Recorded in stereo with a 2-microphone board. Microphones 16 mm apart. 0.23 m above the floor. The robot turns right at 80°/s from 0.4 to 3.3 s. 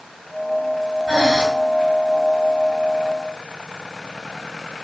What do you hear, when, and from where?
1.1 s breathing: 55° right (ahead or behind), 4 m; by 1.4 s 30° right (ahead or behind), 4 m